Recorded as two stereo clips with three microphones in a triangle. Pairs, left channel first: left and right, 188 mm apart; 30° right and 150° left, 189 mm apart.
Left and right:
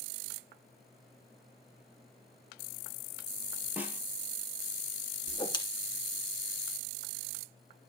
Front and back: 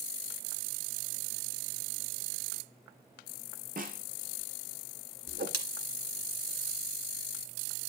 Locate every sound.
3.8 s a snare drum: 170° right, 2.5 m
5.3 s a whoosh: 150° left, 1.5 m